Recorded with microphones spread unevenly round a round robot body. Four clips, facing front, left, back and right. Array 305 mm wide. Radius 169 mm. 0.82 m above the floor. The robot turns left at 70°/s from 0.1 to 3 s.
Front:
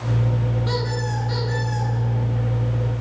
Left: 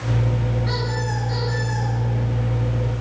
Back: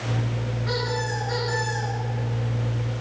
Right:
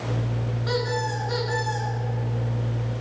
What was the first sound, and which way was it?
A squeak, 50° right.